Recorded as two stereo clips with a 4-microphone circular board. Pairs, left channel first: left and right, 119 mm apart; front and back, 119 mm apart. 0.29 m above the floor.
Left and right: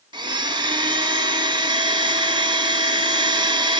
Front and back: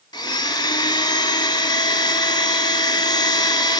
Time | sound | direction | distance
0.1 | a blender | 45° right | 0.7 m